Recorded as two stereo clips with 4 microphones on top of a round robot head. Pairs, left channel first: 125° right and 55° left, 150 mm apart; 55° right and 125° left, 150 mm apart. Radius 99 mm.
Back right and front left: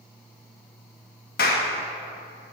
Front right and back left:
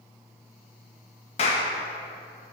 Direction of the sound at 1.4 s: 105° right.